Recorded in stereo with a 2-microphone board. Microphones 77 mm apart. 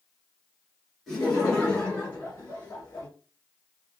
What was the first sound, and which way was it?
Laughter, centre (ahead or behind).